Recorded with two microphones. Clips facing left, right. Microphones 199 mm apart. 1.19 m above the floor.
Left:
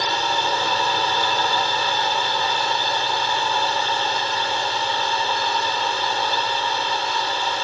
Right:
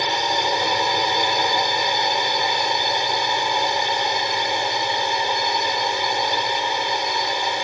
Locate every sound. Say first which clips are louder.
0.0 s a drone: right 1 dB; 15° right (ahead or behind)